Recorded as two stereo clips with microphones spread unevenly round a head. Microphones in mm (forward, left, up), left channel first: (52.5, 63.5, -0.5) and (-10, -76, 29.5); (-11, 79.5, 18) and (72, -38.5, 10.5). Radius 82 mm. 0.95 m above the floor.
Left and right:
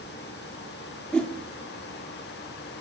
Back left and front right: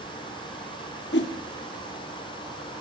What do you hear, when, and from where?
1.1 s a whoosh: 150° left, 1.3 m